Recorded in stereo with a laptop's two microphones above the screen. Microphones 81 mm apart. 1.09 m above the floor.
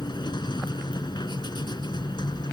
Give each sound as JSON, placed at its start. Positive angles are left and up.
{"t": 0.0, "sound": "a machine running", "side_deg": 65}